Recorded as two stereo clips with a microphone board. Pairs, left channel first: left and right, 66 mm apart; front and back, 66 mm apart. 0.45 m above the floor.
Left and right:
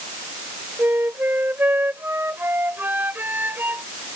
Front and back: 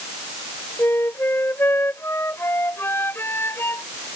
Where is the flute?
40° right.